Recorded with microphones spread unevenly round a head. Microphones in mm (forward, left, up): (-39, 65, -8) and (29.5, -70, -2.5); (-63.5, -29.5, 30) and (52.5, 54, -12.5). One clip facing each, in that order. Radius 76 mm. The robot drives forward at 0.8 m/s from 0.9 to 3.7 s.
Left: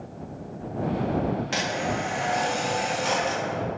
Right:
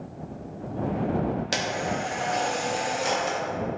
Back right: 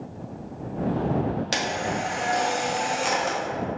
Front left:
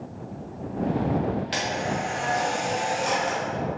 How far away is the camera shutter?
About 1.8 m.